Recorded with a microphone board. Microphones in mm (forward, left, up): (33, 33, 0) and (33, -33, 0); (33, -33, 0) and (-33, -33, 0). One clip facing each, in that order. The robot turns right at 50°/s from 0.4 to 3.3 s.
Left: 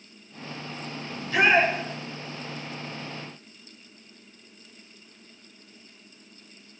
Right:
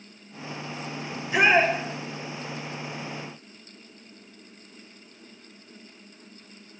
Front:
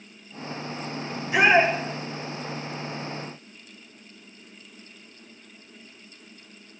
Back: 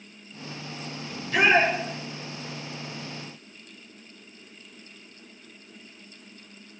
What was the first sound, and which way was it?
A shout, 50° right.